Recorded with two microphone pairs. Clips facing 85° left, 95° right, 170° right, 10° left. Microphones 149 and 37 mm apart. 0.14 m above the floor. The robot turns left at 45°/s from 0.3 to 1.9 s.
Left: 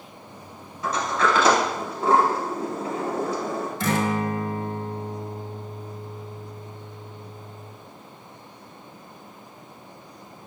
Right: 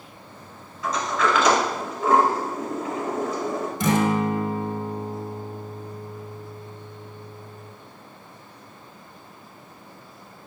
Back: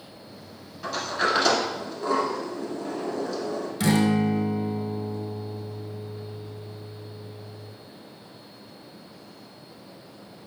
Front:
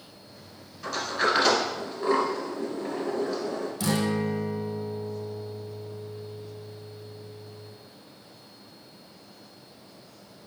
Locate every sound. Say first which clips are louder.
0.8 s a sliding door: even, even; 115° left, 1.2 m; by 3.7 s 65° left, 1.2 m
3.8 s a guitar: right 4 dB, back 6 dB; 160° right, 0.6 m